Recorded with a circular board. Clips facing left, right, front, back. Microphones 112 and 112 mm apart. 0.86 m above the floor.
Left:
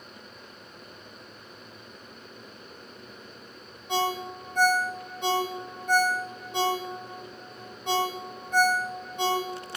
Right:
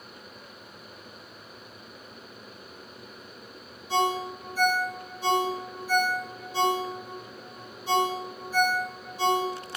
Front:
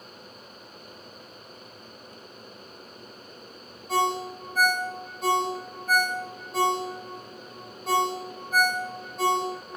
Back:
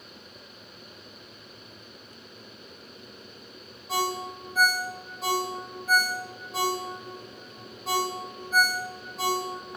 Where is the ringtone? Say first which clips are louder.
Right 2 dB, front 4 dB; 95° left, 1.4 m.